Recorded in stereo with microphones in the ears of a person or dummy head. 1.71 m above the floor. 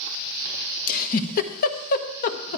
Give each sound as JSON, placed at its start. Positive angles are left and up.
{"t": 0.9, "sound": "a giggle", "side_deg": 50, "distance_m": 1.0}